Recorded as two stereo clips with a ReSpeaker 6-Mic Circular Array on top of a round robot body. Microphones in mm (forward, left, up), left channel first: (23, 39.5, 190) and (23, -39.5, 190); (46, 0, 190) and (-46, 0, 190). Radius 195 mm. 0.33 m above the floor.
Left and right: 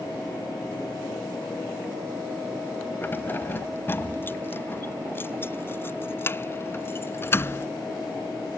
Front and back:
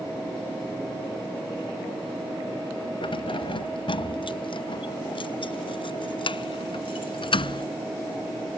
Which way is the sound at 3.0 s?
25° left.